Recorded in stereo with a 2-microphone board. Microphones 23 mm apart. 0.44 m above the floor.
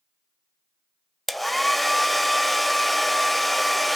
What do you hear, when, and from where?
1.3 s a hair dryer: 5° left (ahead or behind), 0.6 m